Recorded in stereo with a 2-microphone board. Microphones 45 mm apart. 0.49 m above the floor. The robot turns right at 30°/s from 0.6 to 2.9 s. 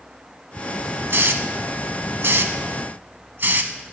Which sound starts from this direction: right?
A hiss, at 1.1 s.